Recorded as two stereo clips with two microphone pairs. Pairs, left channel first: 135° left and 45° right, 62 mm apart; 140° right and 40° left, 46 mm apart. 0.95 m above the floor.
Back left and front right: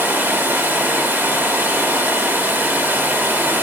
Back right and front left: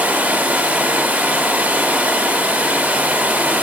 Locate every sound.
0.0 s running water: 5° right, 0.8 m